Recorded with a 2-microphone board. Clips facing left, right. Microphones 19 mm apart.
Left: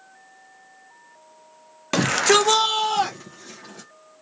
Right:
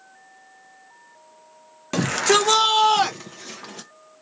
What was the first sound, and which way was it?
A shout, 25° left (ahead or behind).